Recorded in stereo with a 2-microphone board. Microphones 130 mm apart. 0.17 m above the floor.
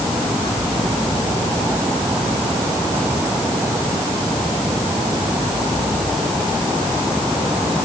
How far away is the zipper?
No zipper in this recording.